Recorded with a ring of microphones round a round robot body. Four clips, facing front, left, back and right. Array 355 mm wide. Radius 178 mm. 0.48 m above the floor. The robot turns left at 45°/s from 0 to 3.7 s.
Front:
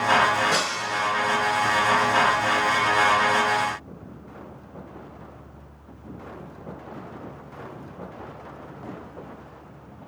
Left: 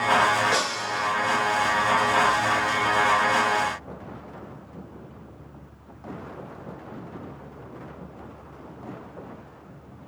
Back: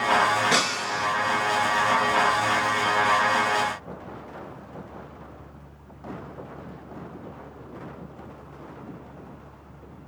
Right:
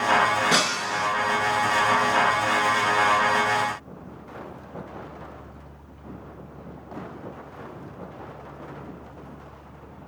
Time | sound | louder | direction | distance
0.5 | breaking glass | right 2 dB, even | 115° right | 2.5 m